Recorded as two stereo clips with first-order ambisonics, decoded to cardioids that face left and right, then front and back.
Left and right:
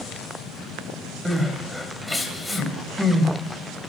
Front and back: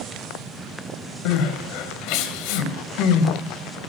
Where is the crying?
5° left, 3 m.